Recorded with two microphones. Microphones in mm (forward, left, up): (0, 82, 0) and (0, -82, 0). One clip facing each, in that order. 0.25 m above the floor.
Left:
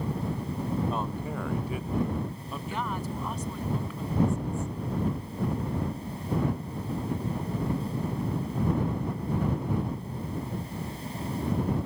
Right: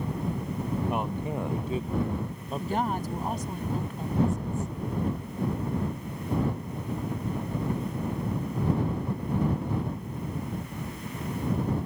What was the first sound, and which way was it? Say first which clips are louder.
A man speaking: right 2 dB; 15° right (ahead or behind).